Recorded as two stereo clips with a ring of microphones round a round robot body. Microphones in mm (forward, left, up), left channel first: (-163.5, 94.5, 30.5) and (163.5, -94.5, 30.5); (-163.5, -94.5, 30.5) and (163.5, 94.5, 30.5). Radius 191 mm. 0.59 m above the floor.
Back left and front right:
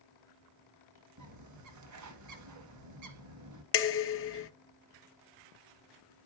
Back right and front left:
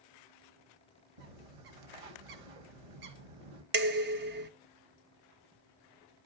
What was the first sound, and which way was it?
A bird, 20° left.